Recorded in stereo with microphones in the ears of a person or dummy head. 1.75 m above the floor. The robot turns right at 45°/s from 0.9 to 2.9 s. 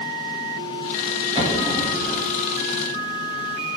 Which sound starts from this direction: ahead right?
An explosion, at 1.4 s.